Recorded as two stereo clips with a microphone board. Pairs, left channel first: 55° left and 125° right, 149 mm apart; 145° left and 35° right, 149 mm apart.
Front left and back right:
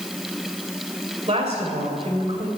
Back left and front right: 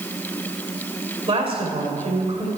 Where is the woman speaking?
80° right, 2.5 m.